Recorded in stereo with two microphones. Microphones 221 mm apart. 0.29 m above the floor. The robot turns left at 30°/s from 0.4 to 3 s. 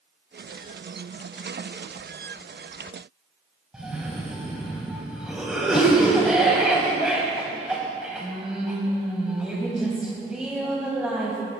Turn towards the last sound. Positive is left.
turn(degrees=-5)  # may be behind; listen again after turning